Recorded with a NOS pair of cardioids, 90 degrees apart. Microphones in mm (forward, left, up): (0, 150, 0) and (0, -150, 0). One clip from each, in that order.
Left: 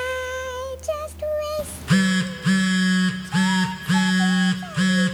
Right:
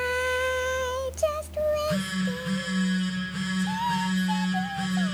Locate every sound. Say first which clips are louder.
1.6 s a phone buzzing: left 1 dB; 65° left, 1.1 m